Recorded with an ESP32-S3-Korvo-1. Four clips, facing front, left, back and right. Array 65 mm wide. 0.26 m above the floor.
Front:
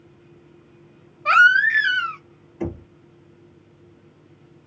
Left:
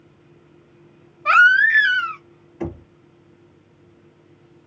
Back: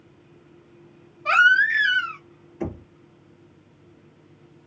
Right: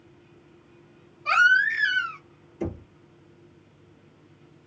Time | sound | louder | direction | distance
1.2 | a baby crying | left 6 dB, front 3 dB | 60° left | 0.9 m
2.6 | knocking | left 3 dB, front 2 dB | 75° left | 1.1 m